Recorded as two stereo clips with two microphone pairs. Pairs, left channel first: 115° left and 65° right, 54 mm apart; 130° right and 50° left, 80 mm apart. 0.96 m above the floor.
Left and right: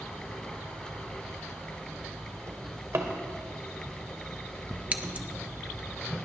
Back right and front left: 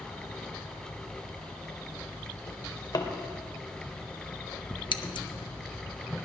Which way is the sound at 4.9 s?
125° right.